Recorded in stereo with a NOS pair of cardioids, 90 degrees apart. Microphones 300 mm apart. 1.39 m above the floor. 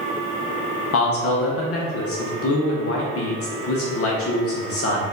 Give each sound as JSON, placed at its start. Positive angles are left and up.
{"t": 0.9, "sound": "a man speaking", "azimuth_deg": 50, "distance_m": 1.1}